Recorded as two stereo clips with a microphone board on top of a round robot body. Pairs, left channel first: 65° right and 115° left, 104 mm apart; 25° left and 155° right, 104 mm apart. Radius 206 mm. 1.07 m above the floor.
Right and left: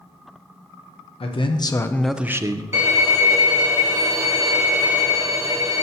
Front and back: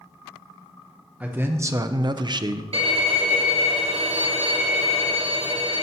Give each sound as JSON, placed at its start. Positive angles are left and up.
{"t": 1.2, "sound": "a man speaking", "azimuth_deg": -85, "distance_m": 1.0}
{"t": 2.7, "sound": "a violin", "azimuth_deg": 180, "distance_m": 1.1}